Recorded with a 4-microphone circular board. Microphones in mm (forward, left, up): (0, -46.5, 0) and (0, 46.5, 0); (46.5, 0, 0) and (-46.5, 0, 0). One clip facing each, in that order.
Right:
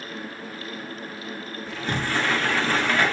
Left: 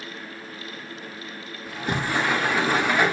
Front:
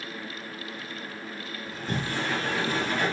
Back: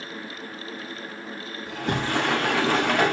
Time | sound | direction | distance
1.7 | a sliding door | 170° left | 1.2 m